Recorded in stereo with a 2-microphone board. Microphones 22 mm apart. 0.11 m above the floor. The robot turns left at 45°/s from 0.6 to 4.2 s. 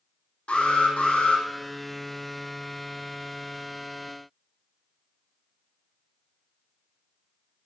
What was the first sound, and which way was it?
An alarm, 110° left.